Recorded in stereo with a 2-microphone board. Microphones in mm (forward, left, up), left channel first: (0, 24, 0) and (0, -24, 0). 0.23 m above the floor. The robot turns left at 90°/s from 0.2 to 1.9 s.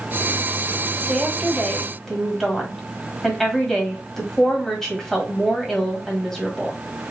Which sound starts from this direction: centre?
A woman speaking, at 1.1 s.